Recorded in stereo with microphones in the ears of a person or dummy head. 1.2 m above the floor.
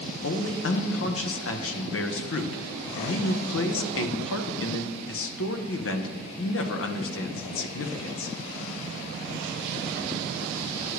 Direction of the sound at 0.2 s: 60° left (ahead or behind).